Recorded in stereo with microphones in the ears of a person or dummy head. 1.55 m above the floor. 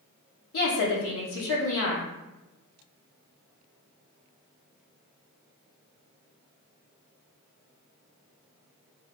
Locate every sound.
0.5 s a woman speaking: 65° left (ahead or behind), 0.9 m